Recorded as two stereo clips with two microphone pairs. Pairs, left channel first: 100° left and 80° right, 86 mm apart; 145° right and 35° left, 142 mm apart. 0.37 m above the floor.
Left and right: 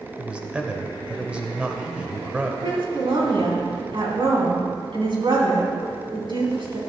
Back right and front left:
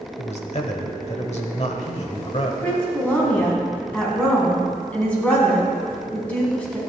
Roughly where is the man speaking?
Behind right.